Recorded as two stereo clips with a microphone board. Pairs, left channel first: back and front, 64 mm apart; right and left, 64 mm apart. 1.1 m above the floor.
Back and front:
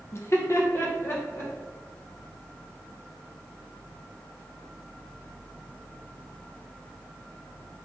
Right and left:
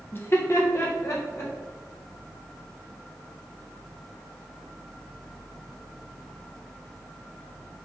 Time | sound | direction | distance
0.1 | laughter | 140° right | 0.5 m